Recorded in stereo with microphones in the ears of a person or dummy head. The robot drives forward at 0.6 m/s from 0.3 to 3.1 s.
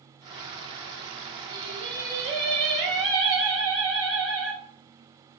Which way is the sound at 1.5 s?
60° right (ahead or behind).